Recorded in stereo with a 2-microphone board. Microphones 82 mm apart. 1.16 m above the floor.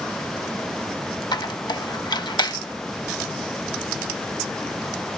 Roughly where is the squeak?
Left.